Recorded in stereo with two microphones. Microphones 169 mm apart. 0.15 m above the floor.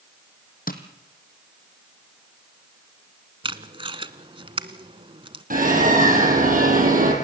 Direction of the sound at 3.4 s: 35° right (ahead or behind).